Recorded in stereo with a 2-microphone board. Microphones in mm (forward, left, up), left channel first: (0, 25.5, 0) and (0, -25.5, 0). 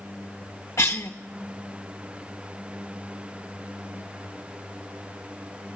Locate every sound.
0.8 s a cough: 60° left (ahead or behind), 0.6 m